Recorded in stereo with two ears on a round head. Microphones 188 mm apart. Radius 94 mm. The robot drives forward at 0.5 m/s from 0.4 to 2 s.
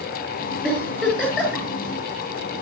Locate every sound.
0.6 s a giggle: 5° right (ahead or behind), 8 m